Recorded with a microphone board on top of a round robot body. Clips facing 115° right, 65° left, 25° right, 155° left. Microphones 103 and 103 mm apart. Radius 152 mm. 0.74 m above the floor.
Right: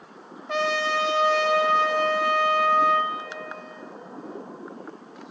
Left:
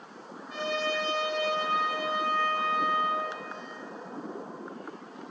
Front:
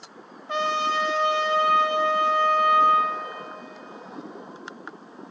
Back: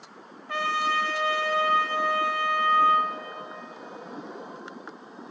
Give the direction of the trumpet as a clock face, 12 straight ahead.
3 o'clock.